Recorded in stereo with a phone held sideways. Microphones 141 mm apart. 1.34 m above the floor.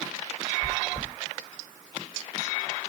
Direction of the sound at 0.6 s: 25° left (ahead or behind).